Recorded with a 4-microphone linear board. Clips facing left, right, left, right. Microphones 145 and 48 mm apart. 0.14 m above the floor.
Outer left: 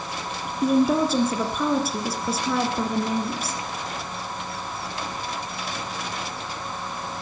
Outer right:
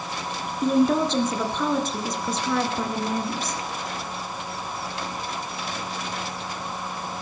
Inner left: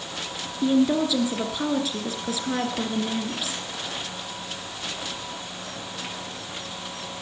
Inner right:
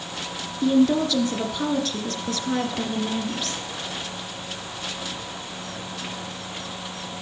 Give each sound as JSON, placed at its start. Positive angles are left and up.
{"t": 0.6, "sound": "a woman speaking", "side_deg": 10, "distance_m": 2.0}